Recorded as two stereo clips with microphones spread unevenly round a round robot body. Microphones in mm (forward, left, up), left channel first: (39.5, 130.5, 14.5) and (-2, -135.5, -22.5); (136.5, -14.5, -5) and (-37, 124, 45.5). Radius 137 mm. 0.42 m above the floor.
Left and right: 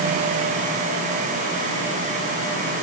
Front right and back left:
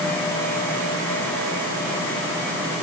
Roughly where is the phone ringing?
No phone ringing in this recording.